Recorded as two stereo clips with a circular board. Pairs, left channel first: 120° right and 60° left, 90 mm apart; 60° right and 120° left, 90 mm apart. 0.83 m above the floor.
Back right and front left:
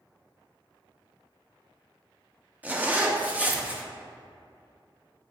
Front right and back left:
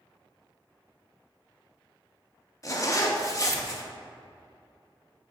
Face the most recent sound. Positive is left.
turn(degrees=-10)